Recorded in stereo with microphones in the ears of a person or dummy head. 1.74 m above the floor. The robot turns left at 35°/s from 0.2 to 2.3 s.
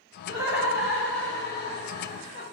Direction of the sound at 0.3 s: 150° right.